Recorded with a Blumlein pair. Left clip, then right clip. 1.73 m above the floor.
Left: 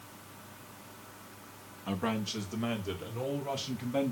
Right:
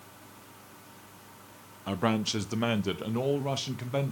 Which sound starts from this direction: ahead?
A man speaking, at 1.9 s.